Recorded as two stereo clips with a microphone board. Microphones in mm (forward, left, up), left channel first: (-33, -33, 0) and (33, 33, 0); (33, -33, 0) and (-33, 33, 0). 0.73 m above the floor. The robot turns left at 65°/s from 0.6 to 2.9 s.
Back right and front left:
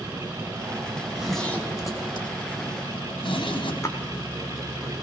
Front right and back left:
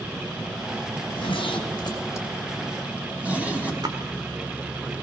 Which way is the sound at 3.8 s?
170° left.